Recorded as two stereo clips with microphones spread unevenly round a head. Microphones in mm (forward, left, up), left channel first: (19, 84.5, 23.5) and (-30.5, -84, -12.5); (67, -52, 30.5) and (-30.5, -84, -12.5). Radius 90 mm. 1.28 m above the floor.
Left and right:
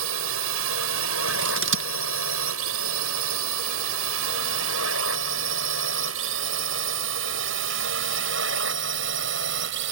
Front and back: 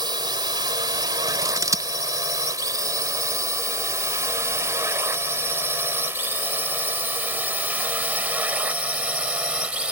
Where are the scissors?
110° right.